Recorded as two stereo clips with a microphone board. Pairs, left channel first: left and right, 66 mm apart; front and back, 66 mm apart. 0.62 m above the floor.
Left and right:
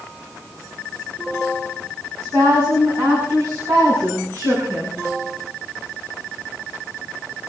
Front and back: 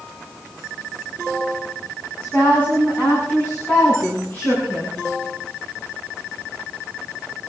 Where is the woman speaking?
70° right, 6.5 m; by 5.0 s 55° right, 8.5 m.